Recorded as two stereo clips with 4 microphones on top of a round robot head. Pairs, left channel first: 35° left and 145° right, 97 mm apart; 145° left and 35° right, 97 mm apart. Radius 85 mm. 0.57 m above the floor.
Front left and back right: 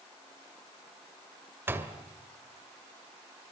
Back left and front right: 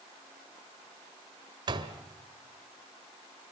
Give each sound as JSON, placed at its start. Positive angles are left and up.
{"t": 1.7, "sound": "a door slam", "azimuth_deg": -75, "distance_m": 2.0}